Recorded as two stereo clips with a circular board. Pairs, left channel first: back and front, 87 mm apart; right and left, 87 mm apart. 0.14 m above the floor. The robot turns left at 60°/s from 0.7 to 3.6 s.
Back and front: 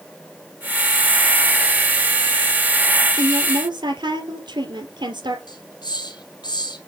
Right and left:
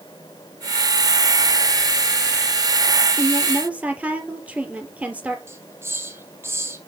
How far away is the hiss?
About 2 m.